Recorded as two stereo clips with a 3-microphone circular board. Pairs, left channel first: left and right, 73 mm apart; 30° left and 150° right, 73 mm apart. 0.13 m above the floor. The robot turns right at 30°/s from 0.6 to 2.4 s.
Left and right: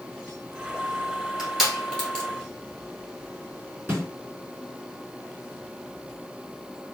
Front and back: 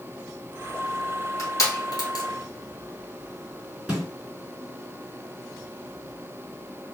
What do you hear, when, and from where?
1.4 s crushing: 10° right, 1.6 m; by 2.2 s 15° left, 1.6 m
3.9 s a snare drum: 90° right, 2.0 m